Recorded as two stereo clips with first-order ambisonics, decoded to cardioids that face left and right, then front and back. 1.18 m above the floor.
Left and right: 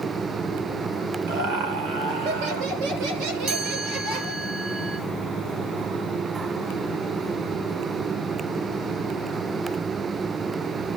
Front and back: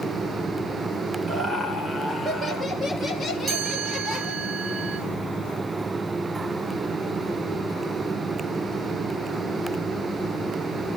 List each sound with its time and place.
1.3 s laughter: 100° right, 4 m; by 4.5 s 60° right, 4 m
3.5 s a chime: 105° right, 4 m